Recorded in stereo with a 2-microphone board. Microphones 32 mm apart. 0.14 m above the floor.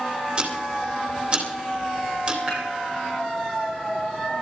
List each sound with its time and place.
0.4 s ticking: 35° right (ahead or behind), 3 m
2.5 s dishes clattering: 25° right (ahead or behind), 10 m